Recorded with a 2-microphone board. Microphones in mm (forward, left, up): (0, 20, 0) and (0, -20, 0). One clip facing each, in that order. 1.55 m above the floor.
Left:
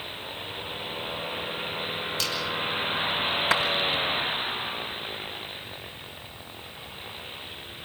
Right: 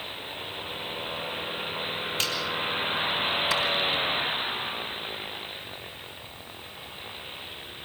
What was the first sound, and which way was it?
A finger snap, 35° right (ahead or behind).